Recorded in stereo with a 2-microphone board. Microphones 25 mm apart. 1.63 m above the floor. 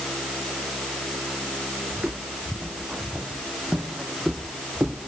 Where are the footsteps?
55° right (ahead or behind); by 5.1 s 60° right (ahead or behind).